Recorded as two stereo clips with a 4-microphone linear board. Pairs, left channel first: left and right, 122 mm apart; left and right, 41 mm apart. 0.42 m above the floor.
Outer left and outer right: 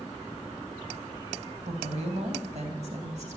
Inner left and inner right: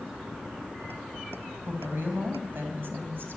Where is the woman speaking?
60° right (ahead or behind), 3 m; by 3.4 s 65° right (ahead or behind), 2.5 m.